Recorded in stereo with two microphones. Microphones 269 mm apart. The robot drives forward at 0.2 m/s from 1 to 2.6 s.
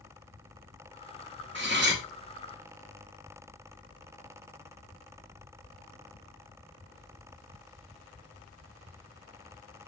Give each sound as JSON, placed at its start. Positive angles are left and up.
{"t": 1.6, "sound": "cutlery clinking", "side_deg": -45, "distance_m": 0.5}